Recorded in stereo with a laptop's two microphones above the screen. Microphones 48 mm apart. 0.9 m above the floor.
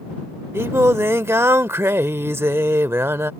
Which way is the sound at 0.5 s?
65° right (ahead or behind).